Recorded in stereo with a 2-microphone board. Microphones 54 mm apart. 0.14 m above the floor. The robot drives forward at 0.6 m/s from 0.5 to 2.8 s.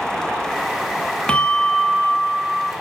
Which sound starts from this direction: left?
A bell, at 1.3 s.